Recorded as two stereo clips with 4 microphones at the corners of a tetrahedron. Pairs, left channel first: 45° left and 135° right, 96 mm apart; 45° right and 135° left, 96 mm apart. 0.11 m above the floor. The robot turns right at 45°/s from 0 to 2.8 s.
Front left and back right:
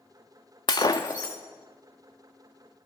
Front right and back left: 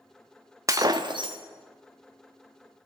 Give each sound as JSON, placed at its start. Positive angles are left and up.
{"t": 0.7, "sound": "breaking glass", "azimuth_deg": 80, "distance_m": 0.7}